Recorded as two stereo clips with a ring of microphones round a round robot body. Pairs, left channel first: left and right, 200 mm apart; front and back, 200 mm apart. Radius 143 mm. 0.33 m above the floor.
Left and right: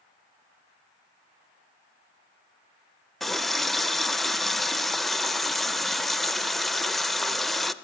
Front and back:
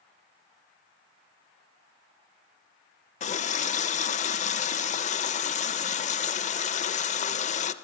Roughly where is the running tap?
Ahead.